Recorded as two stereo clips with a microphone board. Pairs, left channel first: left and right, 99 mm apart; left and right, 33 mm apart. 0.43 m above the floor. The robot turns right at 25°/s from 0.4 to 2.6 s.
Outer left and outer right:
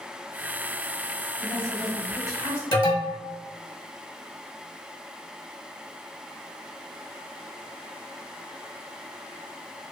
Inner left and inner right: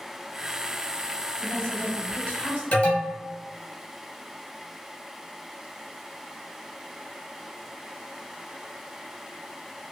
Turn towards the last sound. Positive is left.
turn(degrees=40)  # may be behind; listen again after turning